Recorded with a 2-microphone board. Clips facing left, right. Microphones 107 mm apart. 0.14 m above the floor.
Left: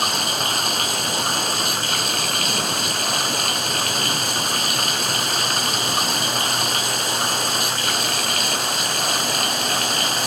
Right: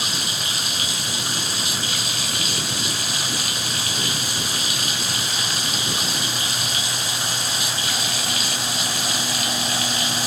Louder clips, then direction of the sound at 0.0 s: Left 6 dB; 60° left (ahead or behind).